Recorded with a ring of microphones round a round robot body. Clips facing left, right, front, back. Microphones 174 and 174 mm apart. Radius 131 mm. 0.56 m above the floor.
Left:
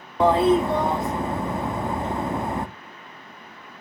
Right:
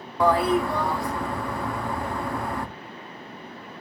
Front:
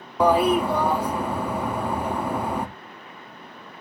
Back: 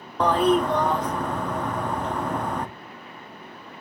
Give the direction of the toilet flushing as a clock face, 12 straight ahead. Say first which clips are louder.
Left 3 dB, front 1 dB; 10 o'clock.